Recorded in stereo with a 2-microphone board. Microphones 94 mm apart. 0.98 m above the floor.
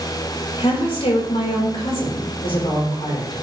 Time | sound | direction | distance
0.6 | a woman speaking | 80° left | 3.5 m